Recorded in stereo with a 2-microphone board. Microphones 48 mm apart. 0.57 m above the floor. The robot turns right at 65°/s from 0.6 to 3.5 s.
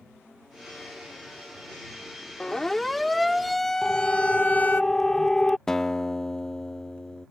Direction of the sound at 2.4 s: 15° left (ahead or behind).